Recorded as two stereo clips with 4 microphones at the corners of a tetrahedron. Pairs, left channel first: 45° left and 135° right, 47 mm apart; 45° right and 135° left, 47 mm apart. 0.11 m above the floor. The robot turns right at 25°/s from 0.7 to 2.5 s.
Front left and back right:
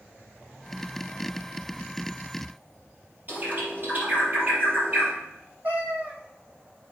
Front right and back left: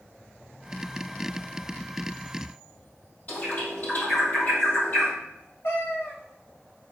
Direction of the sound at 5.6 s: 80° right.